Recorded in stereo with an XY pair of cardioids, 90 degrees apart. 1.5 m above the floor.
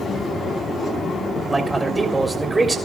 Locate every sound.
1.5 s a man speaking: 25° right, 3.5 m